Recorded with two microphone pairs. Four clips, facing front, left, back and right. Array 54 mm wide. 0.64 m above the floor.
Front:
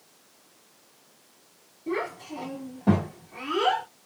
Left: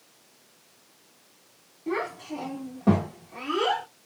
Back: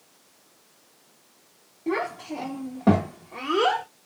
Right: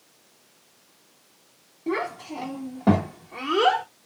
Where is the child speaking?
165° right, 3 m; by 3.9 s 140° right, 1.5 m.